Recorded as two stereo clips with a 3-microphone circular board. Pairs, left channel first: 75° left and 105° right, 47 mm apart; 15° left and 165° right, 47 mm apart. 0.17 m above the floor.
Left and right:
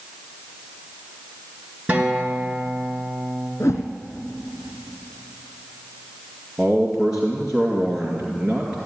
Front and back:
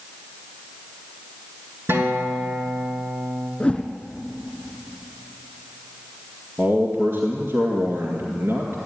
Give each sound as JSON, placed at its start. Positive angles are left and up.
{"t": 1.9, "sound": "a guitar", "azimuth_deg": -160, "distance_m": 2.5}
{"t": 3.6, "sound": "a whoosh", "azimuth_deg": 85, "distance_m": 1.6}
{"t": 6.6, "sound": "a man speaking", "azimuth_deg": 180, "distance_m": 2.0}